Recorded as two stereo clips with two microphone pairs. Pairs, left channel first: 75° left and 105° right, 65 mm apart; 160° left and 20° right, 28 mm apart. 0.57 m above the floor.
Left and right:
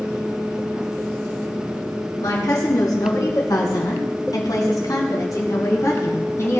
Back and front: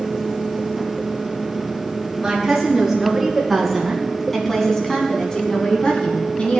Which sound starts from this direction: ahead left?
A woman speaking, at 2.2 s.